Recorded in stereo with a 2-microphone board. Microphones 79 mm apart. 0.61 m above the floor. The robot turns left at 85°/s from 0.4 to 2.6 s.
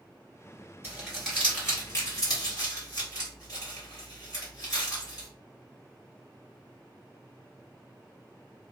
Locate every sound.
0.8 s crumpling: 30° right (ahead or behind), 1.7 m; by 5.3 s 45° left (ahead or behind), 1.7 m